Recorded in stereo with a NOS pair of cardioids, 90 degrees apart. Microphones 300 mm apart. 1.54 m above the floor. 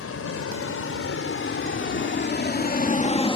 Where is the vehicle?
50° left; by 3.4 s 15° left.